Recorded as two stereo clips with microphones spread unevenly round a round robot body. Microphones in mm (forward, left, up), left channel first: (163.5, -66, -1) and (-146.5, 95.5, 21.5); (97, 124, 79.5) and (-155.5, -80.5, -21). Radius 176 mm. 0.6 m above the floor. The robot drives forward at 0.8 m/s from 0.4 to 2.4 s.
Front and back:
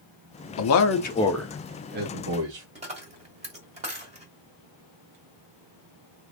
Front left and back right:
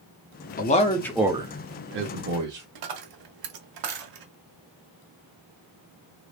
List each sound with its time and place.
0.6 s a man speaking: 35° right, 0.9 m; by 2.6 s 160° right, 1.1 m
2.8 s a dropped coin: 135° right, 1.1 m